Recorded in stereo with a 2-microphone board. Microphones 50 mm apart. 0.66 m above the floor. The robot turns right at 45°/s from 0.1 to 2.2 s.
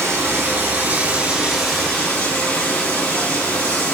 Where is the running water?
75° right, 2 m; by 4.0 s 20° left, 2 m.